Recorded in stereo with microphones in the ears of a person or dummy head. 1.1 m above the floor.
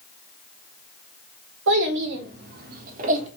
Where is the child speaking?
75° right (ahead or behind), 1.4 m; by 3.3 s 45° right (ahead or behind), 1.4 m.